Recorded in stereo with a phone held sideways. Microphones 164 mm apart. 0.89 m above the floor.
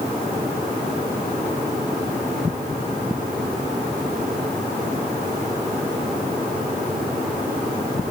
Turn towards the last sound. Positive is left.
No sound to turn to.